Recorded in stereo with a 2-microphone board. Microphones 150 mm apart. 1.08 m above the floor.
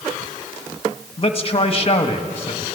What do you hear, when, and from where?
1.2 s a man speaking: 40° left (ahead or behind), 1.5 m